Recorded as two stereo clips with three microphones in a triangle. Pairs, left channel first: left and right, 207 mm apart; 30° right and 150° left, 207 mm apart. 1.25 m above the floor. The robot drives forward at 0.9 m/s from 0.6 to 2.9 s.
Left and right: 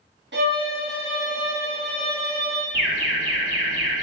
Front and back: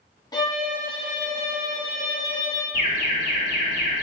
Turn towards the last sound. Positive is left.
turn(degrees=-75)